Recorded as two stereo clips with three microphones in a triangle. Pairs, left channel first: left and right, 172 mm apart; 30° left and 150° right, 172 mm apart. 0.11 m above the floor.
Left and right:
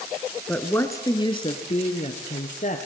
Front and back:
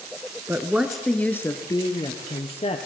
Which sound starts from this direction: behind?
A woman speaking, at 0.5 s.